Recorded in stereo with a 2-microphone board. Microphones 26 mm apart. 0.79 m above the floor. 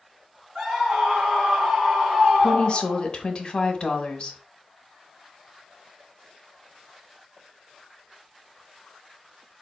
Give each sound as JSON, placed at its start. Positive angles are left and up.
{"t": 0.6, "sound": "a scream", "side_deg": -40, "distance_m": 1.9}
{"t": 2.4, "sound": "a woman speaking", "side_deg": 40, "distance_m": 0.9}